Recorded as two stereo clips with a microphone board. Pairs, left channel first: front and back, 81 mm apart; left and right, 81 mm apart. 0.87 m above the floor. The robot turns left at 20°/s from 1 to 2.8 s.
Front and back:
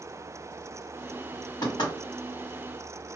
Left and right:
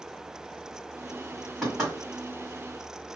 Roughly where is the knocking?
Ahead.